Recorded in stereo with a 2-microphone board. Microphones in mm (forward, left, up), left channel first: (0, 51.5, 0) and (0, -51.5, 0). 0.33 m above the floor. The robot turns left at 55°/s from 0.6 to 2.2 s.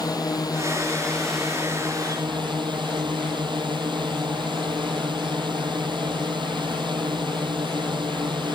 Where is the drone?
40° left; by 8.6 s 50° right.